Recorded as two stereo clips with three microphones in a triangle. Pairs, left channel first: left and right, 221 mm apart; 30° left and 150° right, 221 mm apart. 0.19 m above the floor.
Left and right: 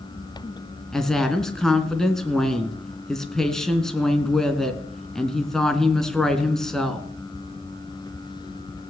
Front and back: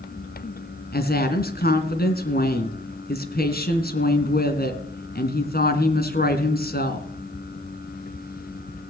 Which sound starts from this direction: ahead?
A woman speaking, at 0.9 s.